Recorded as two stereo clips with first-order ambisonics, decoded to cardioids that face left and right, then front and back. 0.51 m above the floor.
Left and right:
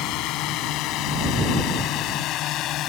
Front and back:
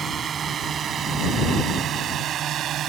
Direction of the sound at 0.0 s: 115° left.